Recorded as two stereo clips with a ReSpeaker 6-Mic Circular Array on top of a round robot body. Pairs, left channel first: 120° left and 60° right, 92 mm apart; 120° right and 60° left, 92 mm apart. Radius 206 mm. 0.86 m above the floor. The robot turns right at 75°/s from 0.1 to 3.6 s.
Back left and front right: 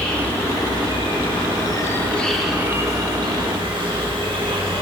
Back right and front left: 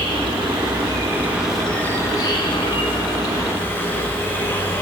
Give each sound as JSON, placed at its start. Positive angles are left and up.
{"t": 0.0, "sound": "an insect", "azimuth_deg": 40, "distance_m": 3.0}